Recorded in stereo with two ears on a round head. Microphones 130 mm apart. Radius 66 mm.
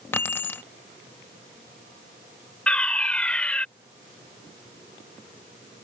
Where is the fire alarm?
10° left (ahead or behind).